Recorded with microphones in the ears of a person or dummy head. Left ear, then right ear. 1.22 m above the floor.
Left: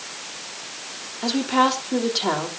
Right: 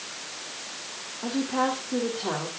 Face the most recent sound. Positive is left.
turn(degrees=80)